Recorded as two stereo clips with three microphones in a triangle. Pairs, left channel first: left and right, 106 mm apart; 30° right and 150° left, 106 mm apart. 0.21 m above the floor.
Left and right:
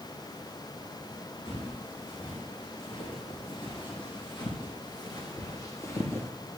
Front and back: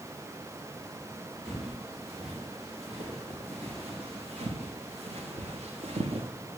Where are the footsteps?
125° left, 6.5 m; by 6.3 s 160° left, 1.9 m.